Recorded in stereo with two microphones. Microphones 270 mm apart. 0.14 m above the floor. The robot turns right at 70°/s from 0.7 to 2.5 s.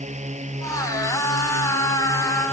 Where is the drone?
150° right; by 2.5 s 25° right.